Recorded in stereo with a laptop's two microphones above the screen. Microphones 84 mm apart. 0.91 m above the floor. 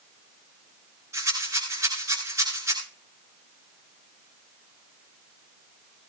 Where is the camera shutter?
No camera shutter in this recording.